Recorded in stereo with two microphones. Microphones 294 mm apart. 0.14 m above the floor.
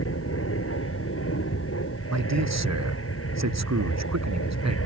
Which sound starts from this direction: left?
An aircraft, at 0.0 s.